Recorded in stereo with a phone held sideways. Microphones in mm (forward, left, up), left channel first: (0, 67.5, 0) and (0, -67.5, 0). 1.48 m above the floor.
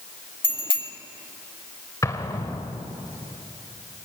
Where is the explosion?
25° left (ahead or behind), 1.6 m.